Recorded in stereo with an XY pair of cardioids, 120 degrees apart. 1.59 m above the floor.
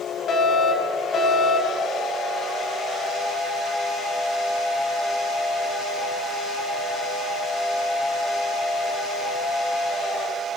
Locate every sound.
0.3 s a fire alarm: 45° left, 7 m